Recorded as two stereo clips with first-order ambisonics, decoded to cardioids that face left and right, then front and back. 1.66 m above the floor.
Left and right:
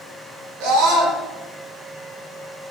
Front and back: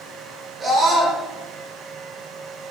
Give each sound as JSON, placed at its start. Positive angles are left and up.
{"t": 0.6, "sound": "a scream", "azimuth_deg": -105, "distance_m": 3.0}